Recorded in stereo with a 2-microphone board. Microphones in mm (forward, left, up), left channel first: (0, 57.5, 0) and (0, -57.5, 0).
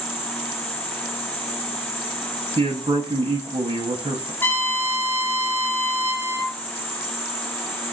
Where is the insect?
20° left (ahead or behind), 1.1 m.